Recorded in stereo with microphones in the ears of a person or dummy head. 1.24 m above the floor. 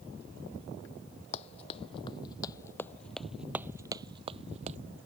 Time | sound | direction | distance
1.3 | running footsteps | 35° left (ahead or behind) | ?